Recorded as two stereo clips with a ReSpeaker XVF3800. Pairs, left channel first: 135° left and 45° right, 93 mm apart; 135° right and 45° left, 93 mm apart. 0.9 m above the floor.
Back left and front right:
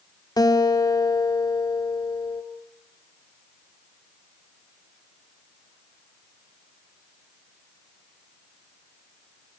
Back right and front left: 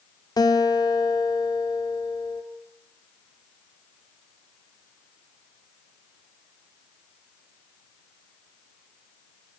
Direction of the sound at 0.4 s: Straight behind.